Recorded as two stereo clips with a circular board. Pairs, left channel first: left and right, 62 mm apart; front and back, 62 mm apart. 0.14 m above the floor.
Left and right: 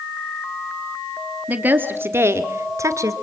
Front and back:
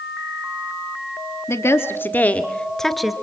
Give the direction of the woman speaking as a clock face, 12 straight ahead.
1 o'clock.